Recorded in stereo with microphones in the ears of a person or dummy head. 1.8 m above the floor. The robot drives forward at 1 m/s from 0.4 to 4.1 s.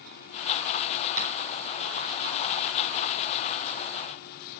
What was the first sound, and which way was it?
Tapping, 15° right (ahead or behind).